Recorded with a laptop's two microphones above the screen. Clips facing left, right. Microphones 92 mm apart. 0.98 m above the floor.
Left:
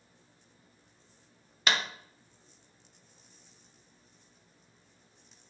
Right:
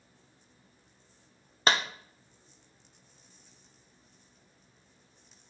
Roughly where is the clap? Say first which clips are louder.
Right 3 dB; right.